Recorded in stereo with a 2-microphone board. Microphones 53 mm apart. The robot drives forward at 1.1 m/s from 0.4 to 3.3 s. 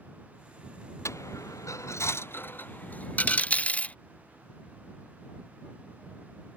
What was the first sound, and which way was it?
A dropped coin, 65° left (ahead or behind).